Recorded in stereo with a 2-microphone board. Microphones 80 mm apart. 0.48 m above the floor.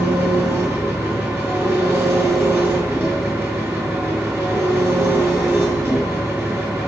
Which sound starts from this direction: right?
An engine running, at 0.0 s.